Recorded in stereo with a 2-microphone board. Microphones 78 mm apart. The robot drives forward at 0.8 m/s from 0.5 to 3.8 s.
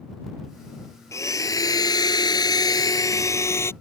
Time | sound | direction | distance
1.1 | a blender | 40° left (ahead or behind) | ?